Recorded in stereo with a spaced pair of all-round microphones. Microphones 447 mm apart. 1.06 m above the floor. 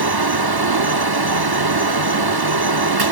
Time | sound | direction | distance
0.0 | a fan | 55° right (ahead or behind) | 1.0 m